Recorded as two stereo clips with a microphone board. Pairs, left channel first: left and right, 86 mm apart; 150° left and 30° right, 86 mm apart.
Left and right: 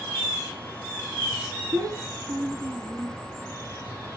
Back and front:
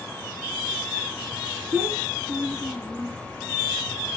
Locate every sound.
1.7 s a child speaking: 85° right, 1.3 m